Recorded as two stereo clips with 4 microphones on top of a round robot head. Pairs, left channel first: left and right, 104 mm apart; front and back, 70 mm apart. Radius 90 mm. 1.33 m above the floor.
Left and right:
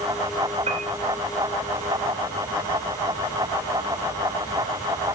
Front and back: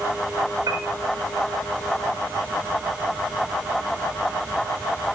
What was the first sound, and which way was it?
A piano, 125° right.